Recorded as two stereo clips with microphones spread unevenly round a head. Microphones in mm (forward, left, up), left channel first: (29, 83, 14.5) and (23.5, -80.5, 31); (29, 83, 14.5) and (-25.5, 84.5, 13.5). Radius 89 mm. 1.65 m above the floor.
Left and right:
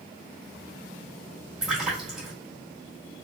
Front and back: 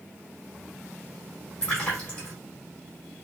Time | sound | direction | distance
1.6 | a splash | 30° right | 1.4 m